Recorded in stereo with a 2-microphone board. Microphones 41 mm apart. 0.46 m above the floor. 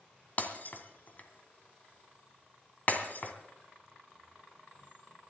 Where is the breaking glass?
45° left (ahead or behind), 2.0 m.